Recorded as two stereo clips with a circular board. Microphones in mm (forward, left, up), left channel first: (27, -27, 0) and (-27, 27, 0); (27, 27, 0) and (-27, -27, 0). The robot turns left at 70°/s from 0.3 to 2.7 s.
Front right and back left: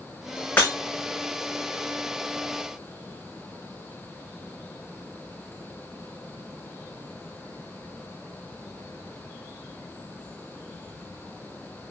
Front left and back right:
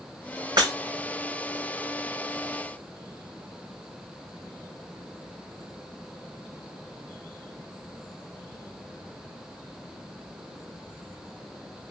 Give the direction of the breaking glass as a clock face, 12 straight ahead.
4 o'clock.